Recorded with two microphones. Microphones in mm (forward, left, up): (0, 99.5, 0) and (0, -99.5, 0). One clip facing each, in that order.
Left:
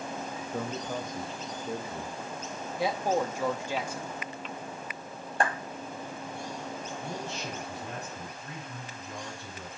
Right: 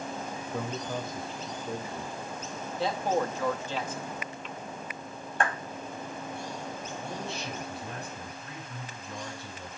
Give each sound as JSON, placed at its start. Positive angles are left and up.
{"t": 0.5, "sound": "a man speaking", "side_deg": 15, "distance_m": 0.6}
{"t": 2.8, "sound": "a man speaking", "side_deg": 10, "distance_m": 0.8}
{"t": 5.4, "sound": "a clap", "side_deg": 35, "distance_m": 1.1}
{"t": 7.0, "sound": "a man speaking", "side_deg": 70, "distance_m": 5.5}